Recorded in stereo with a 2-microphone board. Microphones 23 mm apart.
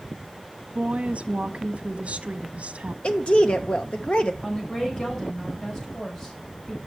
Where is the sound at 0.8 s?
75° right (ahead or behind), 1.2 m.